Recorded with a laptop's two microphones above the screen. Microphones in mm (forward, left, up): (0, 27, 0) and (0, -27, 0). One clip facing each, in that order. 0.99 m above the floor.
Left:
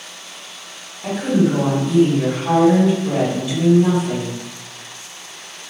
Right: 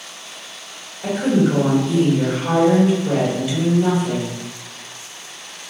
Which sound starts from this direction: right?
A woman speaking, at 1.0 s.